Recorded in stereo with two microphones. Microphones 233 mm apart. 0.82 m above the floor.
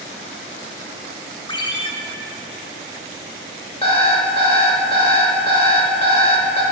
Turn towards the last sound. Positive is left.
turn(degrees=25)  # may be behind; listen again after turning